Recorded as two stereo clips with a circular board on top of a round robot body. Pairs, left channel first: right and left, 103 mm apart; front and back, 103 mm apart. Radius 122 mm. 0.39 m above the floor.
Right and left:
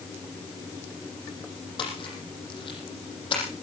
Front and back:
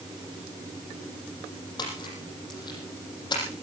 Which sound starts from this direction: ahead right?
A splash, at 1.8 s.